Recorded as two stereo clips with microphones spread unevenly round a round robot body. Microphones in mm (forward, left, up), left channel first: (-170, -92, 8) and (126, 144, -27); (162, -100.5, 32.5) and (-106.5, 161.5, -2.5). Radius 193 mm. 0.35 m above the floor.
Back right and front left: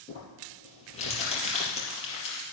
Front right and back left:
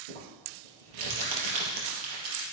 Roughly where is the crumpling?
Behind left.